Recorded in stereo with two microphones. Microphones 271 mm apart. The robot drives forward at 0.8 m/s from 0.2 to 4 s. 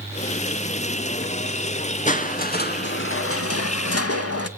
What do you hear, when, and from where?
2.1 s crushing: 30° left (ahead or behind), 1.6 m; by 4.5 s 60° left (ahead or behind), 0.9 m